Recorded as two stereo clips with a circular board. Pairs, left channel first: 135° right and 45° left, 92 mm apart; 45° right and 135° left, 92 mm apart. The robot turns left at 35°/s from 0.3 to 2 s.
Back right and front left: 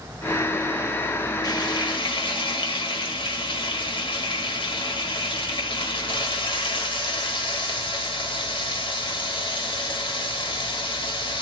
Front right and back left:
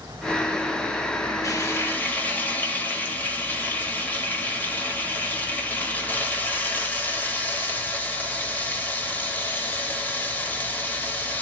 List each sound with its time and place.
1.4 s frying: 95° right, 1.1 m; by 11.4 s 115° right, 1.1 m